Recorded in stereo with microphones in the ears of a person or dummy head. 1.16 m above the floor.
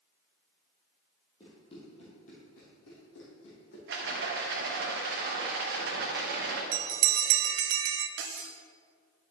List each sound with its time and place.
1.4 s running footsteps: 30° left (ahead or behind), 3 m; by 3.8 s 70° left (ahead or behind), 3.5 m
3.9 s a rattle: 50° right (ahead or behind), 0.9 m
6.7 s a bell: 80° right, 0.6 m
8.2 s cutlery clinking: 55° right (ahead or behind), 0.6 m